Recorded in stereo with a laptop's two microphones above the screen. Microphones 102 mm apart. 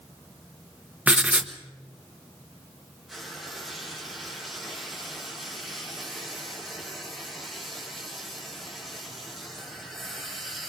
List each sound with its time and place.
1.1 s writing: 15° right (ahead or behind), 1.1 m
3.1 s frying: 5° right (ahead or behind), 6.5 m